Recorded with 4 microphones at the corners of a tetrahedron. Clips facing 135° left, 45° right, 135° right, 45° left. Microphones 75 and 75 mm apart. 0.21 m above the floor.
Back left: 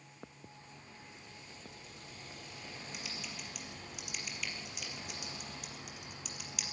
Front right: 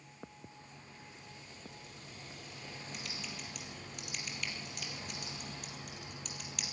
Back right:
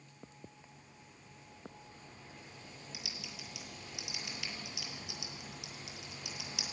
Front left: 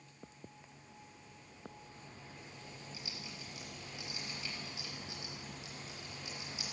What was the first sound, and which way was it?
Typing on a keyboard, 140° right.